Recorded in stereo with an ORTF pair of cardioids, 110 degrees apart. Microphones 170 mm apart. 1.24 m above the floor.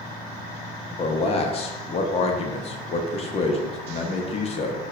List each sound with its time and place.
1.0 s a man speaking: 35° left, 0.7 m